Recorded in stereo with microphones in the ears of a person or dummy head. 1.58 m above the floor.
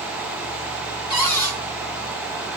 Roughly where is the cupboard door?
Left.